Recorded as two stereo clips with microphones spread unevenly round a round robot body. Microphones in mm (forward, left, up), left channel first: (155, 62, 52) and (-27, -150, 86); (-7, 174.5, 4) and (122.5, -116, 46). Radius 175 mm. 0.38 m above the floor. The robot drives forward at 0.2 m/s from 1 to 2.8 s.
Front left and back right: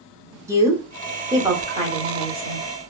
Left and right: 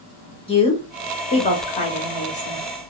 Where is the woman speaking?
145° left, 0.8 m; by 2.7 s 160° left, 1.0 m.